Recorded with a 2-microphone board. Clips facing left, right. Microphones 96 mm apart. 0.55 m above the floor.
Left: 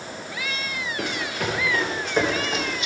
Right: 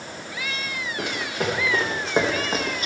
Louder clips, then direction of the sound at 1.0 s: Right 1 dB; 25° right (ahead or behind).